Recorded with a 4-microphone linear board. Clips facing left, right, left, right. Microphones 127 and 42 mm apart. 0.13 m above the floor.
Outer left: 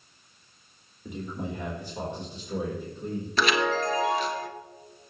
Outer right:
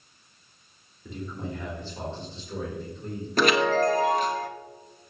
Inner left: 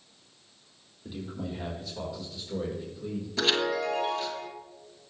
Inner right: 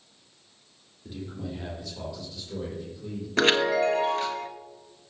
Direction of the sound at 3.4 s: 50° right (ahead or behind).